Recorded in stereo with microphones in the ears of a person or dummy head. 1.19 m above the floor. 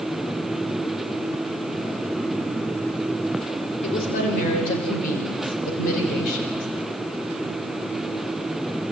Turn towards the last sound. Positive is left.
turn(degrees=50)  # may be behind; listen again after turning